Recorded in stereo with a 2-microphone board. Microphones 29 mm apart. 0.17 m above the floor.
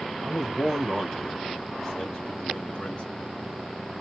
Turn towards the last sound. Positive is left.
turn(degrees=25)  # may be behind; listen again after turning